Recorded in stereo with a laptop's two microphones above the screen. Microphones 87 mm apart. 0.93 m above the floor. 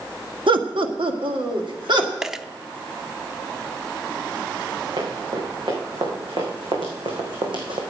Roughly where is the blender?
I don't hear a blender.